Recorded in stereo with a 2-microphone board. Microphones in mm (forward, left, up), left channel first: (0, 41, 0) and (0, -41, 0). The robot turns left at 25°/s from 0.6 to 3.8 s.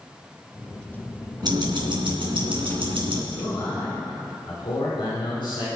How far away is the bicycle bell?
No bicycle bell in this recording.